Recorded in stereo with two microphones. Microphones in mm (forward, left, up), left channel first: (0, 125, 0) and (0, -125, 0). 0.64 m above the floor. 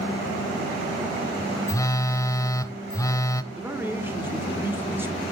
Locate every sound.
1.7 s a phone buzzing: 15° left (ahead or behind), 0.6 m
3.5 s a man speaking: 10° right (ahead or behind), 1.6 m